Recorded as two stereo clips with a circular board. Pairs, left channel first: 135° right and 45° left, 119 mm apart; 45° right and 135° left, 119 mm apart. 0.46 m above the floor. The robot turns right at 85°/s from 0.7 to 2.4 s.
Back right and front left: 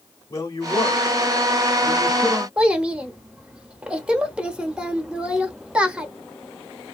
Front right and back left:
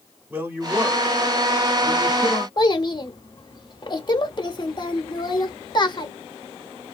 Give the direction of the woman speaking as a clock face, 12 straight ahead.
5 o'clock.